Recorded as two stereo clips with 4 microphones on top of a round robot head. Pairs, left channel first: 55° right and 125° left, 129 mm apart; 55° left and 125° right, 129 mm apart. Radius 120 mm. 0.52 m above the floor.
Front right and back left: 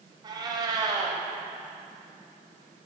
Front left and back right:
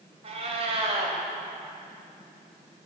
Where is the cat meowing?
175° right, 0.5 m.